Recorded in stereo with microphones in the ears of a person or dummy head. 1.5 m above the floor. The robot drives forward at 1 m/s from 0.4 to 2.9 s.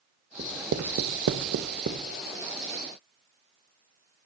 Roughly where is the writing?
Right.